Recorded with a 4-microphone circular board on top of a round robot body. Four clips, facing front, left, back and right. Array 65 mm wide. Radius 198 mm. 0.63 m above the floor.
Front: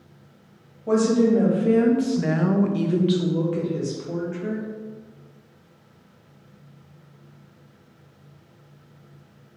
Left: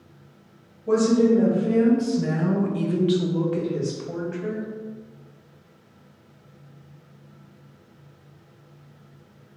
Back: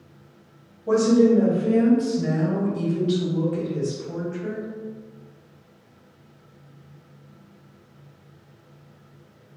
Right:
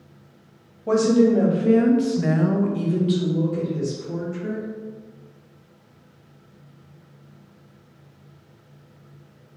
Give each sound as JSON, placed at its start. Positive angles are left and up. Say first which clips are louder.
{"t": 0.9, "sound": "a woman speaking", "louder": "right 1 dB, back 2 dB", "azimuth_deg": -75, "distance_m": 1.4}